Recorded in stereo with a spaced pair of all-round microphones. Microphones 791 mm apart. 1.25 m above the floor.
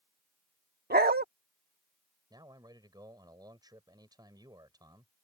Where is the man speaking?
5° right (ahead or behind).